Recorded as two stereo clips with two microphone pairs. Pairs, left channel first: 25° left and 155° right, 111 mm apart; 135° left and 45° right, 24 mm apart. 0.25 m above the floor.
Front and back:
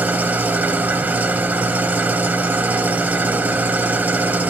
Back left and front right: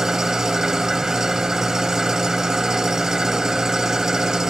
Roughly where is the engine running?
Right.